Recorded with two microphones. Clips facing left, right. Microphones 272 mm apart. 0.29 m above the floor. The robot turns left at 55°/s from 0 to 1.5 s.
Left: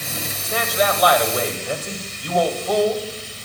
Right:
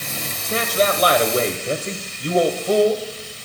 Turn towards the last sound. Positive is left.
turn(degrees=-120)